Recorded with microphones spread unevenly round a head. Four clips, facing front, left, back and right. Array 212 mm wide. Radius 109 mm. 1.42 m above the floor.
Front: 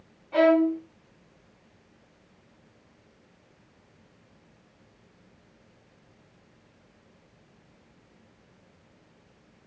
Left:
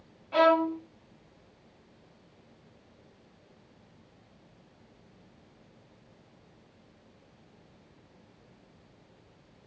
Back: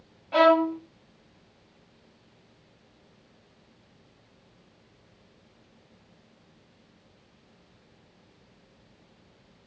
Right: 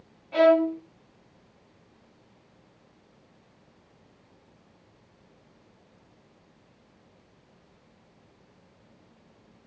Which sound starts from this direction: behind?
A violin, at 0.3 s.